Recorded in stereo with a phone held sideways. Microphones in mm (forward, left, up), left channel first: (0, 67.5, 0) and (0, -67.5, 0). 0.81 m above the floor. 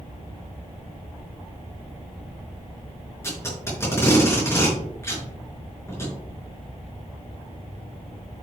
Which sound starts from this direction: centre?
Tape being pulled, at 3.2 s.